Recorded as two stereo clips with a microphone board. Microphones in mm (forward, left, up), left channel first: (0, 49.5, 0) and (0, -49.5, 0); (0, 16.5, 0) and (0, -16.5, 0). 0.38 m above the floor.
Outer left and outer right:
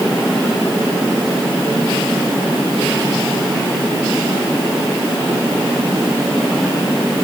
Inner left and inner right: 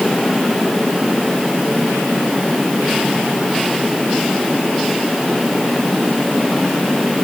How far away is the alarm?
No alarm in this recording.